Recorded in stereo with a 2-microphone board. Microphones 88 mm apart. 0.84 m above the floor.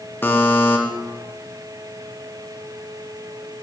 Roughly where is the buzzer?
Left.